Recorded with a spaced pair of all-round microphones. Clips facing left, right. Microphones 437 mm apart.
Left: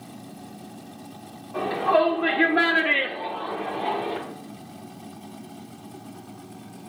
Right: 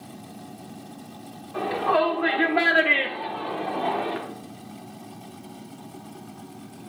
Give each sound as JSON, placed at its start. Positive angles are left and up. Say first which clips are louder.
{"t": 1.5, "sound": "a shout", "louder": "left 2 dB", "side_deg": 65, "distance_m": 1.8}